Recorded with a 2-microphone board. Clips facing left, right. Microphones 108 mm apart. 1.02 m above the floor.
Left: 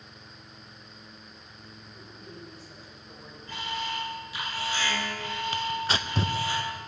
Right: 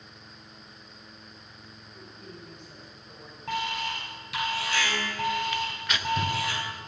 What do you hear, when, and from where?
1.9 s a woman speaking: 5° left (ahead or behind), 5 m
3.5 s an alarm: 65° right (ahead or behind), 5 m
5.5 s tearing paper: 30° left (ahead or behind), 0.8 m